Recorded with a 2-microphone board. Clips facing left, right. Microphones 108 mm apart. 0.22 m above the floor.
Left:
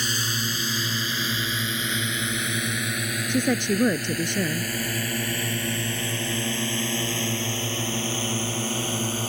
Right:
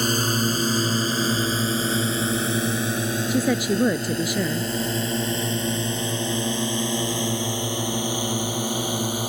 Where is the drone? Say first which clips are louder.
Right 8 dB; 45° right (ahead or behind); by 9.3 s 15° right (ahead or behind).